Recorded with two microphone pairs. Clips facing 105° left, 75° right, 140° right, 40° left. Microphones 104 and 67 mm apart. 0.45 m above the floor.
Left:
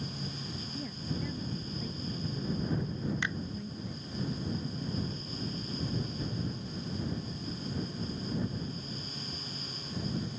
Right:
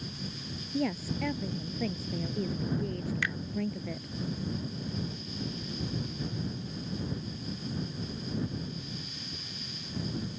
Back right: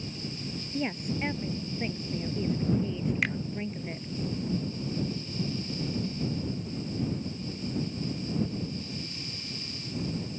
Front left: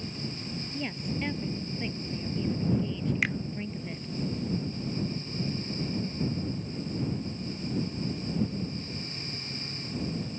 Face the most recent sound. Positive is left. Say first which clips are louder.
# right 1 dB, front left 1 dB
turn(degrees=125)